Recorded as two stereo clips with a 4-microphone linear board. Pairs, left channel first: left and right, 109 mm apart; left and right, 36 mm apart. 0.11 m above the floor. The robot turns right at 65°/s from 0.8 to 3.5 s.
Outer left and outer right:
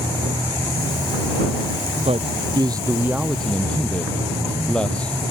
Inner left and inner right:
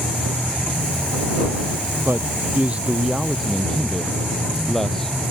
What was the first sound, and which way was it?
A man speaking, 85° right.